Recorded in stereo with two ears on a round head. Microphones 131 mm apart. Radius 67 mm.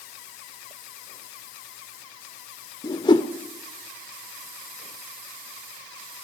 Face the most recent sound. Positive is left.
turn(degrees=30)  # may be behind; listen again after turning